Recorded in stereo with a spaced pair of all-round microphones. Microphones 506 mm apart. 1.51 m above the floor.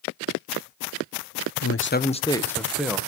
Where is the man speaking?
35° left (ahead or behind), 0.5 m; by 3.0 s centre (ahead or behind), 1.2 m.